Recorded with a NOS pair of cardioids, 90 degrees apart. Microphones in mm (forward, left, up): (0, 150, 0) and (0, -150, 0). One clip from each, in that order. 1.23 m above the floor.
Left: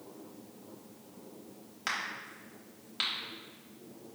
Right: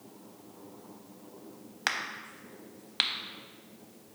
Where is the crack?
40° right, 0.6 m.